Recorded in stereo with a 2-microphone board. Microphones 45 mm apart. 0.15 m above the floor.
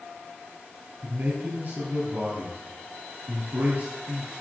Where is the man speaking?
45° right (ahead or behind), 3 m.